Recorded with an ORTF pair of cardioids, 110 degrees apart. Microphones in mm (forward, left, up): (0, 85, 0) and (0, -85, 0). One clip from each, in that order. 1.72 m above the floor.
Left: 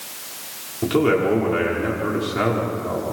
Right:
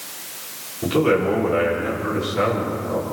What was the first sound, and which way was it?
A man speaking, 25° left.